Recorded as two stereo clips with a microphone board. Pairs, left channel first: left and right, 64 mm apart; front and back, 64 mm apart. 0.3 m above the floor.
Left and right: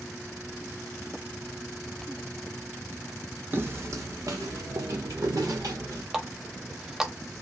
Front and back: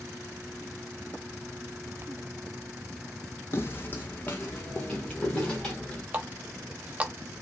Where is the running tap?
160° right, 0.5 m.